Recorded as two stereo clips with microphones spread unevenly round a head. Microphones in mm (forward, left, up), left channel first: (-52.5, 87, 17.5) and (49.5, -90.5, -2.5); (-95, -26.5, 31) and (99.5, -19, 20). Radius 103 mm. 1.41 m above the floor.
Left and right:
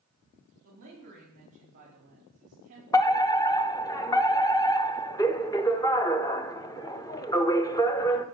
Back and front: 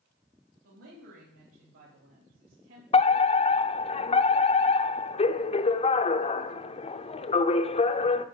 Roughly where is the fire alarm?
Behind.